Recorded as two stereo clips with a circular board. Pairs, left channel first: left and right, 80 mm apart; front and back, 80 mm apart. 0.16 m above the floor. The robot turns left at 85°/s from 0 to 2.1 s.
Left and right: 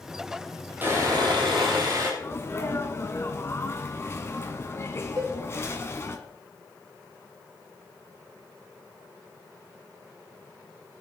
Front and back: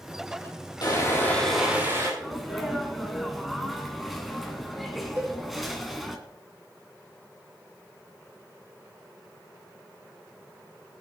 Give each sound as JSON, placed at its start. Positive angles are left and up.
{"t": 0.8, "sound": "sawing", "azimuth_deg": -25, "distance_m": 4.5}
{"t": 2.2, "sound": "a sneeze", "azimuth_deg": 90, "distance_m": 1.3}
{"t": 5.2, "sound": "a cowbell", "azimuth_deg": -125, "distance_m": 5.0}